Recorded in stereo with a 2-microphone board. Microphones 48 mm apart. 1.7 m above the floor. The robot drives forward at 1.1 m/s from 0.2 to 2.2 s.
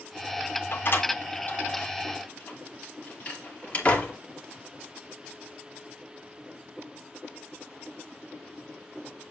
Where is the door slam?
50° left (ahead or behind), 1.8 m; by 4.1 s 30° left (ahead or behind), 3 m.